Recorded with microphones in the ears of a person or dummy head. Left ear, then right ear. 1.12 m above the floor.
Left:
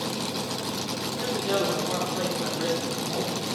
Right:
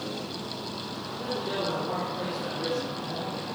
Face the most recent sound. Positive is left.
turn(degrees=65)  # may be behind; listen again after turning